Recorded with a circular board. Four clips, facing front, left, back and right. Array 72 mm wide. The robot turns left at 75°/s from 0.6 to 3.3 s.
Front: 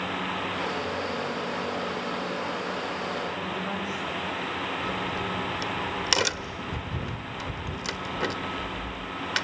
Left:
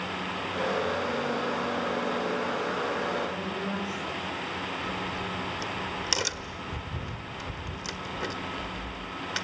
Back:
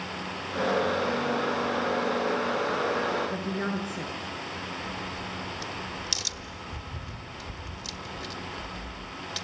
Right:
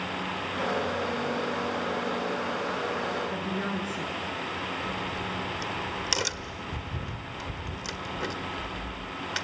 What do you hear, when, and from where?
3.3 s a woman speaking: 150° right, 8 m; by 4.1 s 155° right, 8 m
4.8 s a crack: 5° right, 1.2 m